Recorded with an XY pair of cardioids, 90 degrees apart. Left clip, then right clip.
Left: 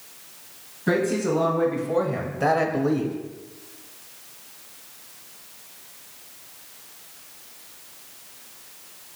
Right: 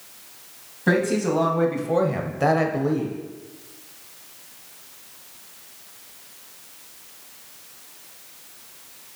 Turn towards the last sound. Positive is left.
turn(degrees=35)